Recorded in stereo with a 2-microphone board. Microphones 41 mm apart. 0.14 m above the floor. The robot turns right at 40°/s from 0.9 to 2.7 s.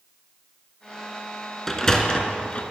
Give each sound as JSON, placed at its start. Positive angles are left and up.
{"t": 1.7, "sound": "a sliding door", "side_deg": 5, "distance_m": 0.6}